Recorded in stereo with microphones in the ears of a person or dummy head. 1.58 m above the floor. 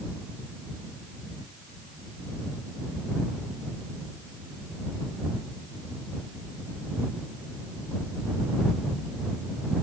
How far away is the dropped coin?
No dropped coin in this recording.